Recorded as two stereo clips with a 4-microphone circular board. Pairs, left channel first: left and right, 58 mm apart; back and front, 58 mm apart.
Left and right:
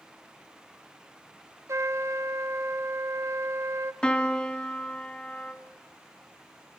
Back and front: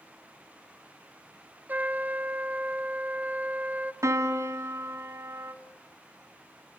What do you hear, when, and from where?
1.7 s a trumpet: 60° right, 0.6 m
4.0 s a piano: 15° left, 1.0 m